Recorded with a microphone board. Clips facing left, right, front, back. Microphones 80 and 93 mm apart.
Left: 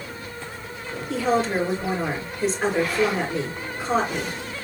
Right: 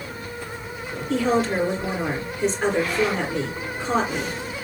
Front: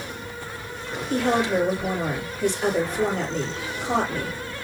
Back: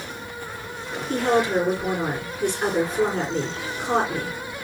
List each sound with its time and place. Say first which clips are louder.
1.1 s a woman speaking: right 1 dB, back 1 dB; 175° left, 3.5 m